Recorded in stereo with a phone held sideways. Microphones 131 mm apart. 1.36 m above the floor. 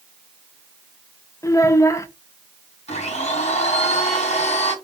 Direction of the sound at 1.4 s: 25° left (ahead or behind).